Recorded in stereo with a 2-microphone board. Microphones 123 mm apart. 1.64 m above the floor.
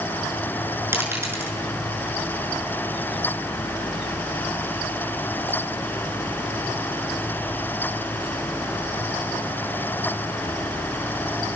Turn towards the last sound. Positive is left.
turn(degrees=-20)  # may be behind; listen again after turning